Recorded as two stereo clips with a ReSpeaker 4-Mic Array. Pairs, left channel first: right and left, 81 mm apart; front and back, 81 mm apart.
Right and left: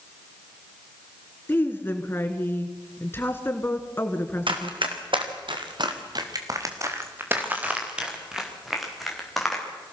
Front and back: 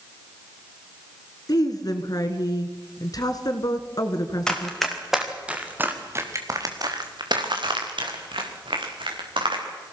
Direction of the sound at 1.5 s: 30° right.